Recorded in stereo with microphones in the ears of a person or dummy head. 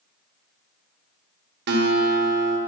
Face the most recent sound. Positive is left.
turn(degrees=-55)  # may be behind; listen again after turning